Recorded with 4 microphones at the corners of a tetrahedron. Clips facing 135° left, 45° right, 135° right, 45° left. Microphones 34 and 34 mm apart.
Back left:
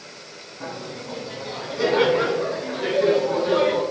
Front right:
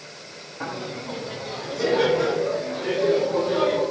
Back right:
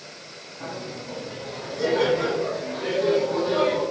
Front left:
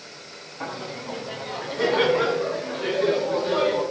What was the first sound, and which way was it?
Laughter, straight ahead.